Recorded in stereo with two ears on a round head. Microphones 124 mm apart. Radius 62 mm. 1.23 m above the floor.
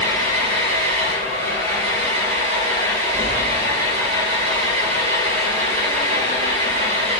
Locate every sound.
0.0 s an engine running: 45° right (ahead or behind), 5 m